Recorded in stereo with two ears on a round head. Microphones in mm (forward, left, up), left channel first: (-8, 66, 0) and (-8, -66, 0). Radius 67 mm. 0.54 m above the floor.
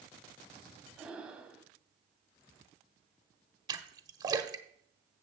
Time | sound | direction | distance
1.0 | breathing | 5° right (ahead or behind) | 1.1 m
3.7 | a splash | 30° right (ahead or behind) | 1.0 m